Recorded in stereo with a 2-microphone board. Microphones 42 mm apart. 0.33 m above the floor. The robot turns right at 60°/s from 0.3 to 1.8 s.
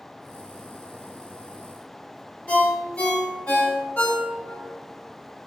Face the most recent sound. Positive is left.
turn(degrees=35)  # may be behind; listen again after turning